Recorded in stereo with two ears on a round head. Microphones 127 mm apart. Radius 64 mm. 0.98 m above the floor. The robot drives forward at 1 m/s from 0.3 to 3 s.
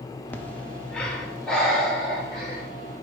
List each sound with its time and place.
0.3 s breathing: 15° left (ahead or behind), 0.6 m; by 2.6 s 5° left (ahead or behind), 3 m